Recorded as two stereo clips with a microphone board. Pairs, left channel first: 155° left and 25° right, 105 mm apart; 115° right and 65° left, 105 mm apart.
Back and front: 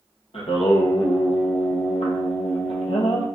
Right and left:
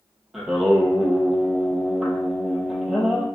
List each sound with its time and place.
0.3 s singing: 155° left, 0.8 m